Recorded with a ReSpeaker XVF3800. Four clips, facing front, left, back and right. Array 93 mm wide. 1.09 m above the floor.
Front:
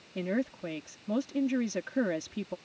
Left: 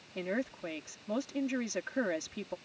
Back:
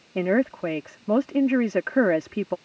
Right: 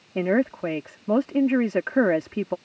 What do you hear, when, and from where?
0.1 s a woman speaking: 140° right